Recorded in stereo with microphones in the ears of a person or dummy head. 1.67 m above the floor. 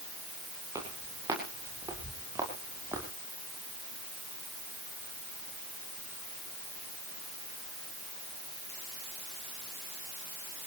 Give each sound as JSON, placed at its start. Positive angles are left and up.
{"t": 0.8, "sound": "footsteps", "side_deg": -20, "distance_m": 8.5}